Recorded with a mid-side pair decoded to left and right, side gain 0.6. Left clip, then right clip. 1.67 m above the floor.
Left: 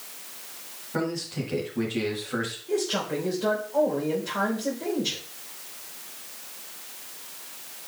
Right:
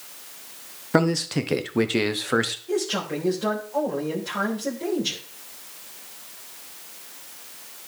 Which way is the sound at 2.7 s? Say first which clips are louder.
Right 1 dB; 15° right.